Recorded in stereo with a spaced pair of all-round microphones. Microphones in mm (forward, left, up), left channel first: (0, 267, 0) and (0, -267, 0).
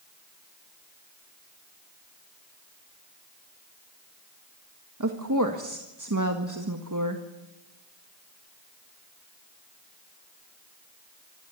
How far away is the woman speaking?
About 1.7 m.